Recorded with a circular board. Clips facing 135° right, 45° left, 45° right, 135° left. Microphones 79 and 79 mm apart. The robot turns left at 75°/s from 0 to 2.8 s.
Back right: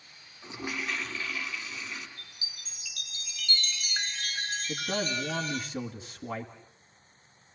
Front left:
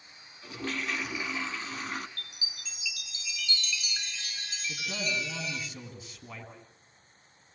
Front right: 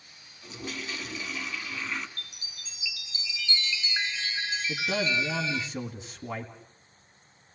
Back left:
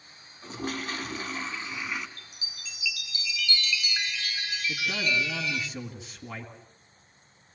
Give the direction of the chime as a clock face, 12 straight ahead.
2 o'clock.